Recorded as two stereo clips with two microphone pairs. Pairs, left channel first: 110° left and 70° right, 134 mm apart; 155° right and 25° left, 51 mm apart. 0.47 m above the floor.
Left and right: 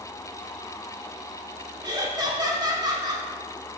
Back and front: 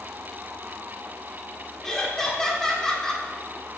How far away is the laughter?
About 1.1 m.